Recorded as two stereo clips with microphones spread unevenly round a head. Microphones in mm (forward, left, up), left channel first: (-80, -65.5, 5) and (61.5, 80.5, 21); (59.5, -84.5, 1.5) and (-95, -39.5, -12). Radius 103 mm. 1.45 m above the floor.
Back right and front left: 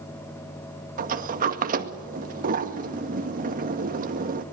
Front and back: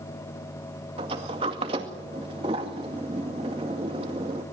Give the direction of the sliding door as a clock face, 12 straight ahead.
9 o'clock.